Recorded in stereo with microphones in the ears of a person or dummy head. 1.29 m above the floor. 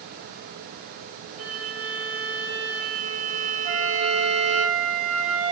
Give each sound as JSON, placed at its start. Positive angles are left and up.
{"t": 1.4, "sound": "a violin", "side_deg": -80, "distance_m": 2.5}
{"t": 3.6, "sound": "a flute", "side_deg": -40, "distance_m": 2.0}